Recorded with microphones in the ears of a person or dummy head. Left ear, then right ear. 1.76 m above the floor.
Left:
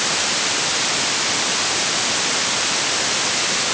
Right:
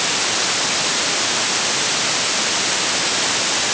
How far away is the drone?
I don't hear a drone.